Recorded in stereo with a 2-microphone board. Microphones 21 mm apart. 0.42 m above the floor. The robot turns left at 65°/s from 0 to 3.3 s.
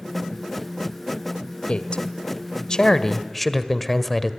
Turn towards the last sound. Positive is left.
turn(degrees=15)